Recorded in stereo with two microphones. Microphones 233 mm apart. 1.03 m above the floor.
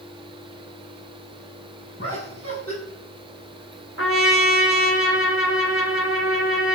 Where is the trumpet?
60° left (ahead or behind), 3 m.